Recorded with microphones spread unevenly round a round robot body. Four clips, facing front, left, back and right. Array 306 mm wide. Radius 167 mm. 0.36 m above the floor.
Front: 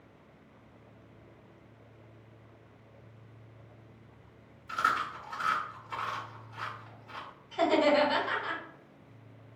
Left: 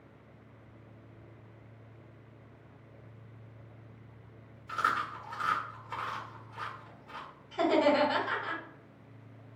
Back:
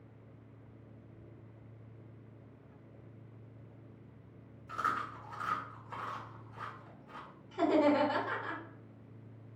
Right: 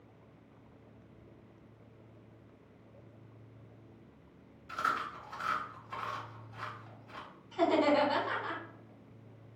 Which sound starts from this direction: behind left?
Chewing, at 4.7 s.